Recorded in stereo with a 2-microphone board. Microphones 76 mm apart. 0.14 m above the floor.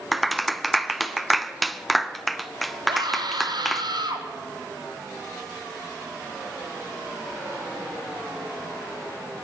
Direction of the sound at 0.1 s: Centre (ahead or behind).